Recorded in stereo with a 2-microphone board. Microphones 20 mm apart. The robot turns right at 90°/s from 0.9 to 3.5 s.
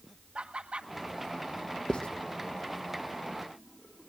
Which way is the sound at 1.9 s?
40° left (ahead or behind).